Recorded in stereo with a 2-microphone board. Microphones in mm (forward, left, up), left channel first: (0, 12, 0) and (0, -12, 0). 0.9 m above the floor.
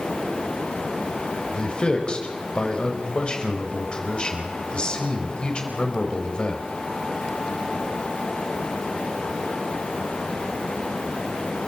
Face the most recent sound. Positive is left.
turn(degrees=40)  # may be behind; listen again after turning